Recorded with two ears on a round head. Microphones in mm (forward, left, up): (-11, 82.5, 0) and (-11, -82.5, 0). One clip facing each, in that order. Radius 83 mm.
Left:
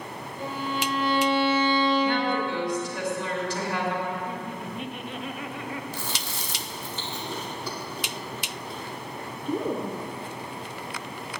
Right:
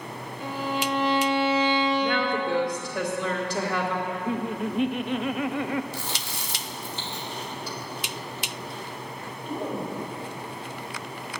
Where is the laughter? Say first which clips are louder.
Right 4 dB; 55° right (ahead or behind), 0.5 m.